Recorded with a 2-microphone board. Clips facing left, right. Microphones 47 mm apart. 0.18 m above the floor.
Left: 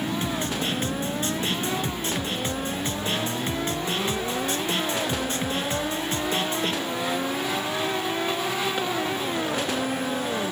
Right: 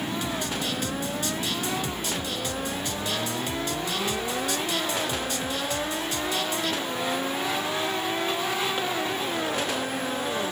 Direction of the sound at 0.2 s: 35° left (ahead or behind).